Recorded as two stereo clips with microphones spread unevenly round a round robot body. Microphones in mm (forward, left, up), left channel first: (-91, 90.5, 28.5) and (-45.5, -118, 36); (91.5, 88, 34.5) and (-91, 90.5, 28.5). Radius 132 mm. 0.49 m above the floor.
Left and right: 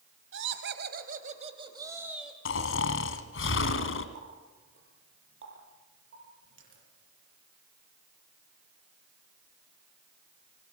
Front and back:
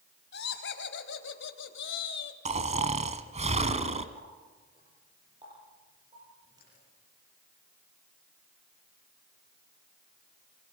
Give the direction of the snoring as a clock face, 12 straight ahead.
8 o'clock.